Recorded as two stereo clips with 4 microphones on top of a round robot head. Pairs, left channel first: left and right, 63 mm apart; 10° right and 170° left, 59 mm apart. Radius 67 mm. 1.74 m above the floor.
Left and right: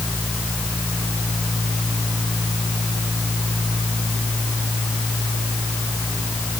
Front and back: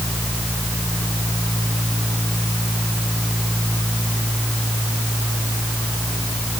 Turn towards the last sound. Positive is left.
No sound to turn to.